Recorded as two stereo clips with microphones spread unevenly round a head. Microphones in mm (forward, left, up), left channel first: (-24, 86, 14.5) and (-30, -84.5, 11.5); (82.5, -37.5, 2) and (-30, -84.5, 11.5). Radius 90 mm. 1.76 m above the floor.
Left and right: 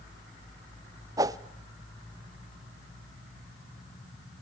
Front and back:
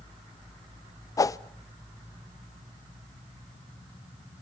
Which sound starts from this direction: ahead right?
A whoosh, at 1.2 s.